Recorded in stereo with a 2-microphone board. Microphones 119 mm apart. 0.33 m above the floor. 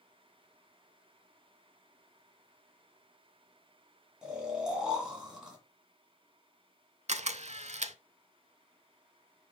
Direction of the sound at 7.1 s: 70° right (ahead or behind).